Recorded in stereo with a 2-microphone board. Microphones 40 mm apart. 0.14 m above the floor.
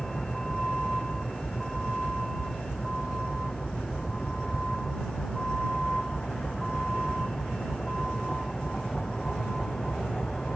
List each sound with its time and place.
0.0 s a vehicle: 15° left (ahead or behind)